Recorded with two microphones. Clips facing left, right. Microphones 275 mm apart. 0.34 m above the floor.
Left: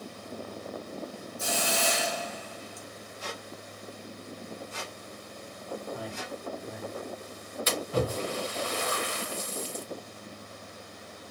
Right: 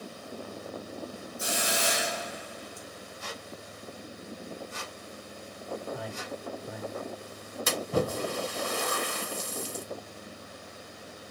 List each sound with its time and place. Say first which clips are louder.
1.4 s a hiss: left 1 dB; 20° right (ahead or behind), 1.2 m
3.2 s a squeak: left 3 dB; 70° left (ahead or behind), 0.8 m
5.9 s a man speaking: even; centre (ahead or behind), 1.6 m
7.7 s a splash: right 1 dB; 55° right (ahead or behind), 1.0 m